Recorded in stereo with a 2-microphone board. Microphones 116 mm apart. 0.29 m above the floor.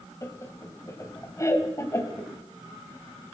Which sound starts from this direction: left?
Laughter, at 0.2 s.